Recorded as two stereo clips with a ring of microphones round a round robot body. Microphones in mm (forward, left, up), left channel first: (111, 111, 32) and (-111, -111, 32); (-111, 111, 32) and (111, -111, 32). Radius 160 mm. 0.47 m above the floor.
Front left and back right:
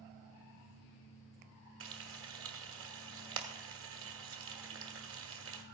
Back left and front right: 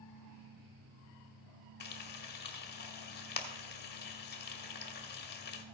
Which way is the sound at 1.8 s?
175° right.